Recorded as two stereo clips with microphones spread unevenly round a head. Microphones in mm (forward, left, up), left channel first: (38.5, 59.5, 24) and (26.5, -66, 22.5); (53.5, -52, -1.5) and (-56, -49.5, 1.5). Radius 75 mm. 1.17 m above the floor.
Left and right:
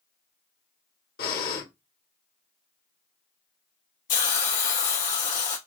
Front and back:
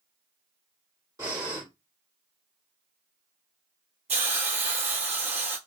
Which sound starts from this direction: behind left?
A hiss, at 4.1 s.